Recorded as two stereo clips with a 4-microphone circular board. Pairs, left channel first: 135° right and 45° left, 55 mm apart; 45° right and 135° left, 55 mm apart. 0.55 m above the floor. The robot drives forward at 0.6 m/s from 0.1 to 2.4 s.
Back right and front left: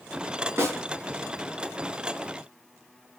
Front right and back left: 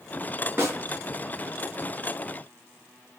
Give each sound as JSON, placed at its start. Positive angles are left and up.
{"t": 0.6, "sound": "a snare drum", "azimuth_deg": 90, "distance_m": 3.5}